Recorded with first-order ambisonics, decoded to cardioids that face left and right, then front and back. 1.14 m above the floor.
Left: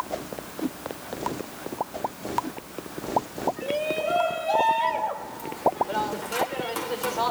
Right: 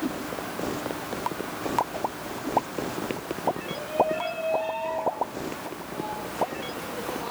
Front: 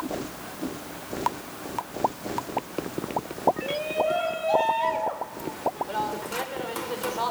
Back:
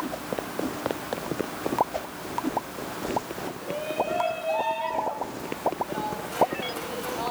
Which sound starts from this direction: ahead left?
A shout, at 3.6 s.